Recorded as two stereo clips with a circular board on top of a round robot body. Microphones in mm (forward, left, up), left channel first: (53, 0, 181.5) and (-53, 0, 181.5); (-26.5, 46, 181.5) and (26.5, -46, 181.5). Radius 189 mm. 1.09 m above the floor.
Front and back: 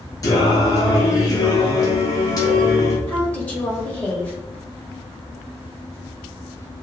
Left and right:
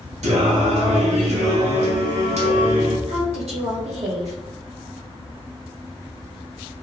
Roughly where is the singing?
Ahead right.